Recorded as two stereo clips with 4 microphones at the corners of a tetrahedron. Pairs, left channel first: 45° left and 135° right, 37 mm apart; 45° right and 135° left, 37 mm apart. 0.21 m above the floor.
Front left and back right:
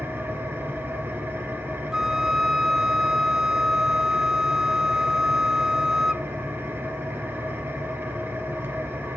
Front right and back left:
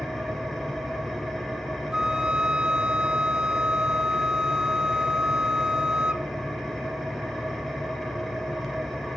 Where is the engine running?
130° right, 2.5 m.